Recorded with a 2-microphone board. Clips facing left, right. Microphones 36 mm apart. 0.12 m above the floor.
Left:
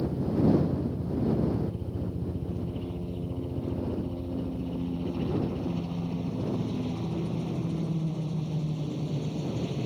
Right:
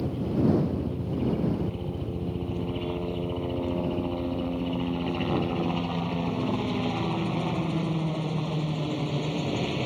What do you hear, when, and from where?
0.0 s a helicopter: 55° right (ahead or behind)